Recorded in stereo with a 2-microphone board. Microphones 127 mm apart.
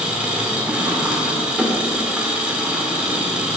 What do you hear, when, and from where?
0.0 s an engine running: 10° right (ahead or behind), 1.8 m